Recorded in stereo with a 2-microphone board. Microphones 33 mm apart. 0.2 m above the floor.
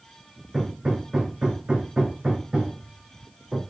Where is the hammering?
25° right (ahead or behind), 4.5 m.